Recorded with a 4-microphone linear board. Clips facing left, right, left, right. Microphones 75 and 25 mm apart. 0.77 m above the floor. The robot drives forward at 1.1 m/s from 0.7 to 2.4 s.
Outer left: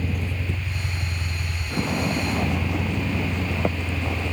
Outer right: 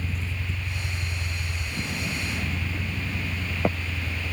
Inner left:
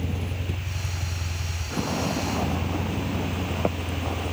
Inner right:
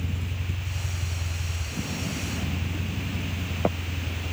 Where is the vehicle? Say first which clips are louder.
Outer left 5 dB, inner left 3 dB; 55° left (ahead or behind); by 4.3 s 70° left (ahead or behind).